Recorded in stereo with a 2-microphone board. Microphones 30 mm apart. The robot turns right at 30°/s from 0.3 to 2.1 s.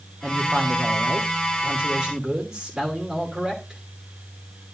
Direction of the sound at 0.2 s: 80° right.